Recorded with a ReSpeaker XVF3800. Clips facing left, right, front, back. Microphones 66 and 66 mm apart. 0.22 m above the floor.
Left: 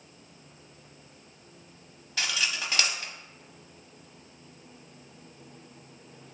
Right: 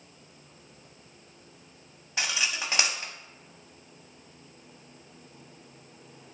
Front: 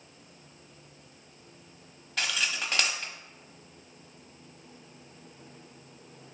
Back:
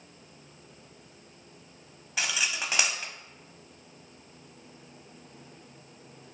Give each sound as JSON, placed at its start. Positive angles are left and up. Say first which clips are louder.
{"t": 2.2, "sound": "cutlery clinking", "louder": "even, even", "azimuth_deg": -115, "distance_m": 0.6}